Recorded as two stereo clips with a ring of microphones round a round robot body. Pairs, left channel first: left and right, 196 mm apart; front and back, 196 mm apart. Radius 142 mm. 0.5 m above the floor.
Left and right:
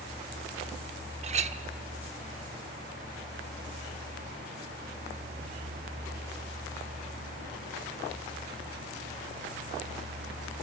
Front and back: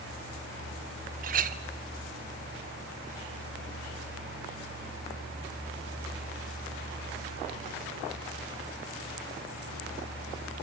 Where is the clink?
140° right, 0.6 m.